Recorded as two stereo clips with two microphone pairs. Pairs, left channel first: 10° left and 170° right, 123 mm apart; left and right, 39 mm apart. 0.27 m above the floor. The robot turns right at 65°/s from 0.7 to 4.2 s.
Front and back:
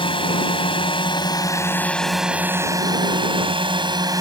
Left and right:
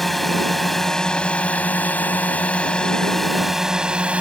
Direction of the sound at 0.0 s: 5° left.